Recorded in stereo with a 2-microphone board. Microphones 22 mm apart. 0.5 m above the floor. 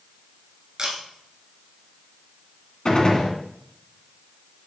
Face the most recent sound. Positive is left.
turn(degrees=35)  # may be behind; listen again after turning